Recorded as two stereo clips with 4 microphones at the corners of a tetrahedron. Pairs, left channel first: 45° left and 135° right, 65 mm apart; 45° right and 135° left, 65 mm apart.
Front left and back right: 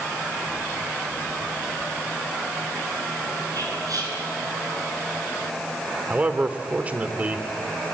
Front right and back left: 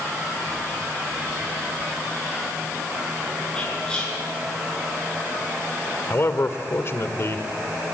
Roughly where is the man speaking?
Right.